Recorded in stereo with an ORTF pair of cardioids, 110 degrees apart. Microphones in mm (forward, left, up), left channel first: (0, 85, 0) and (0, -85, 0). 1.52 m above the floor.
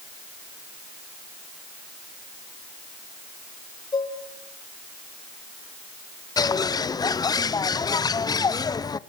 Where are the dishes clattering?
25° left, 5 m.